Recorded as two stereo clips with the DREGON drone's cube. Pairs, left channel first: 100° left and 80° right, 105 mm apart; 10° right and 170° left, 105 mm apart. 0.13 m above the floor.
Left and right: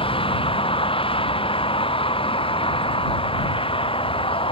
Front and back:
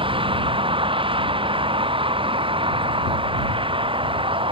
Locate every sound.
0.0 s a vehicle: 135° left